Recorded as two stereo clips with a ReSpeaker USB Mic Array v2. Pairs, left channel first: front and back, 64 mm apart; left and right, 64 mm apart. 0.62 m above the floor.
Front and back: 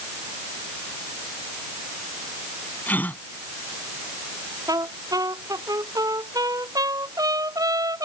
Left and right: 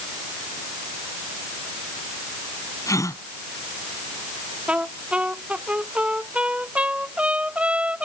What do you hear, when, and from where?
2.9 s a gasp: 65° left
4.7 s a trumpet: 160° right